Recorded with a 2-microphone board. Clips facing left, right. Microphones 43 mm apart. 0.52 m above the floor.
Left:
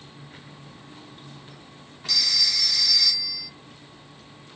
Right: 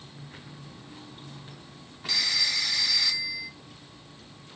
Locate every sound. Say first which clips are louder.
2.1 s a phone ringing: left 1 dB; 20° right (ahead or behind), 0.7 m